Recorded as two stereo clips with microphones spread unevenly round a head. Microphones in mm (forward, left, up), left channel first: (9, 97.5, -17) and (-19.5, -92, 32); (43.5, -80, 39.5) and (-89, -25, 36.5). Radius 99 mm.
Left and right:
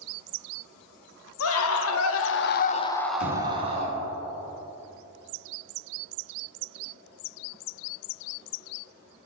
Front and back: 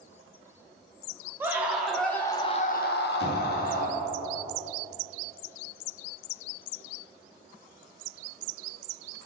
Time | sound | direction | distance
1.4 | a scream | 80° left | 1.2 m
3.2 | knocking | 125° left | 3 m